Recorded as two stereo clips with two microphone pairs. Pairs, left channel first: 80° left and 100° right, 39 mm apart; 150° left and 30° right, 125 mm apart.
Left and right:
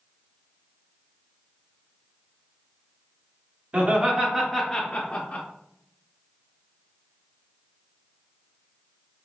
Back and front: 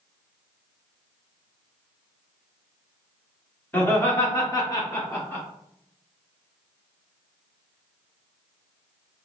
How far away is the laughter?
About 1.3 m.